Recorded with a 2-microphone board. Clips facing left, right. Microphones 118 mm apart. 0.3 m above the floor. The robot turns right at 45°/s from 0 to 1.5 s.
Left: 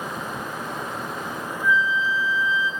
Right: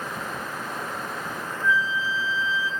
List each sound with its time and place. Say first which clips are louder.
1.6 s a flute: left 3 dB; 30° right (ahead or behind), 2.0 m